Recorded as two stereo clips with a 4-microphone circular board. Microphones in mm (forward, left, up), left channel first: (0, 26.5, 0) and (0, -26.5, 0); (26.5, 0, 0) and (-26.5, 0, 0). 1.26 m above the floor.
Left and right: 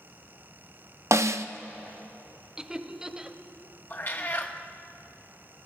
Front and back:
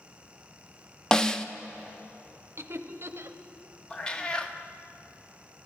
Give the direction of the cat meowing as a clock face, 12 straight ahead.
10 o'clock.